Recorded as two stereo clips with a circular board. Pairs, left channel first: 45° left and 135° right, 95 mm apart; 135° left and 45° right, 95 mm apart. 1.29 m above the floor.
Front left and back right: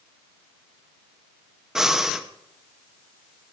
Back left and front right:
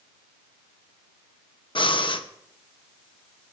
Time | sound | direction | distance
1.8 | breathing | 140° left | 0.9 m